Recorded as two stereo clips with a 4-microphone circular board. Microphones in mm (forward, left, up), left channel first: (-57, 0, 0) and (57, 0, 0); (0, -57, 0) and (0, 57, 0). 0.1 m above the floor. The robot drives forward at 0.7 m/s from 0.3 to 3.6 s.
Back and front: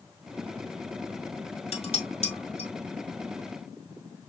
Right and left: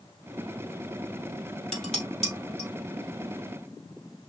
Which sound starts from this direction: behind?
Dishes clattering, at 1.7 s.